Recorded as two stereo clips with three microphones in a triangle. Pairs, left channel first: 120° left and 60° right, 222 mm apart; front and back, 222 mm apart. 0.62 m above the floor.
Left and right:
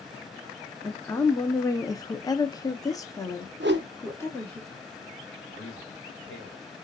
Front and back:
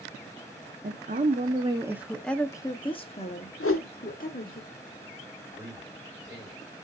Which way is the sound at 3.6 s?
20° right.